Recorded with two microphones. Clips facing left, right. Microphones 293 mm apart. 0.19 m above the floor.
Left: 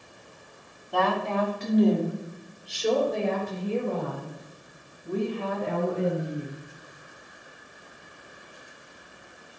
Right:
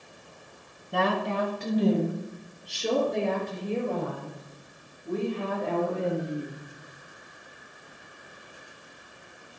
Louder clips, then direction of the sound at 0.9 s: Left 1 dB; 25° right (ahead or behind).